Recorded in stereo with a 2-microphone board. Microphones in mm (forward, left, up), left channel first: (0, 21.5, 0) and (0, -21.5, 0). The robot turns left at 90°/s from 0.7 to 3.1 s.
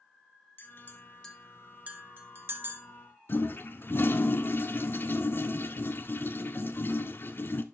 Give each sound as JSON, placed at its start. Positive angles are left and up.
{"t": 0.6, "sound": "a clink", "side_deg": 55, "distance_m": 1.5}
{"t": 3.3, "sound": "a toilet flushing", "side_deg": 55, "distance_m": 0.7}